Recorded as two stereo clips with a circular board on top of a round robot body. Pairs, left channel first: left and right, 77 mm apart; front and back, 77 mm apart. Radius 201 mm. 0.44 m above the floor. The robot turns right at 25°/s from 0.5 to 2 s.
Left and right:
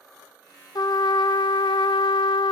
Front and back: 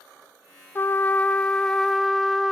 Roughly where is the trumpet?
Ahead left.